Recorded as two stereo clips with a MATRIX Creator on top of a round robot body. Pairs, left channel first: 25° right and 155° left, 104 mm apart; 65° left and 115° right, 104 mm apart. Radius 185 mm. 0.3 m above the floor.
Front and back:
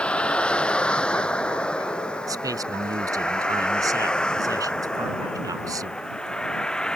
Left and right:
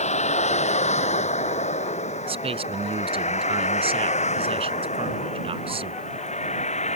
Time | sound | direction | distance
0.0 | a vehicle | 55° left | ?
2.3 | a man speaking | 145° right | ?